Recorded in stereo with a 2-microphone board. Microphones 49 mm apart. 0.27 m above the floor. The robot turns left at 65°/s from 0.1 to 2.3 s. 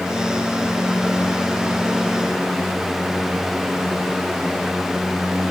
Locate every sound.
Only background noise.